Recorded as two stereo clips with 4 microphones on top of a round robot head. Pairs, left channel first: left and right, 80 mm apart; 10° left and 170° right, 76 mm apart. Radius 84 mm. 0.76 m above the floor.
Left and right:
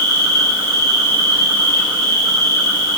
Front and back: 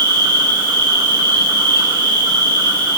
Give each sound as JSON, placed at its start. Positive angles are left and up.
{"t": 0.0, "sound": "an insect", "azimuth_deg": -145, "distance_m": 7.0}